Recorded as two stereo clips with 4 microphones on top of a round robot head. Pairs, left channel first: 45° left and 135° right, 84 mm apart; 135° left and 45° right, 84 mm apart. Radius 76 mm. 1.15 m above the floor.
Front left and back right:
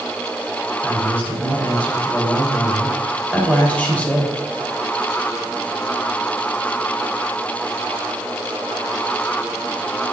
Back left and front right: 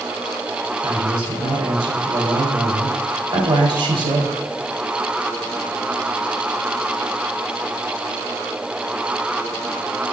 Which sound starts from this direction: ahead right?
A man speaking, at 0.8 s.